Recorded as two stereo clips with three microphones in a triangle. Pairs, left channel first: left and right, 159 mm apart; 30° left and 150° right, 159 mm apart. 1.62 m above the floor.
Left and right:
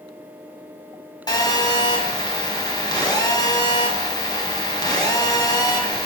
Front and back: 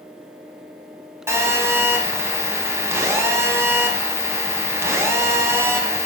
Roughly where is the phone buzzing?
Behind left.